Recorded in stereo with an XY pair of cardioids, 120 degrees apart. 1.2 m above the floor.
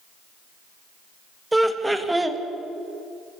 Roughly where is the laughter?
Ahead.